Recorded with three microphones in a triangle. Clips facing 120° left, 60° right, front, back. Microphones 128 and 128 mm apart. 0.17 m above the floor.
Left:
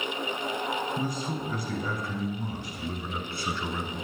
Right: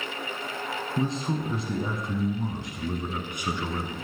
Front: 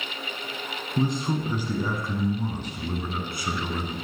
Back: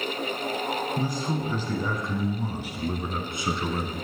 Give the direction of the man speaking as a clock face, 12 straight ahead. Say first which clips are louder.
Right 3 dB, front 2 dB; 1 o'clock.